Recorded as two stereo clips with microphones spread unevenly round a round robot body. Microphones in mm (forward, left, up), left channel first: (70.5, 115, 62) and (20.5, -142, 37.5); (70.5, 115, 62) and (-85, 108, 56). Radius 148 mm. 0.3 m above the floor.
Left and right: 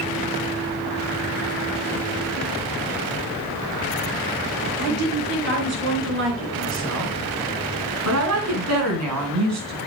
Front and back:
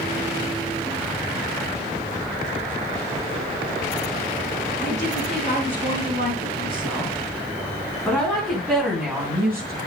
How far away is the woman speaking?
About 6.5 m.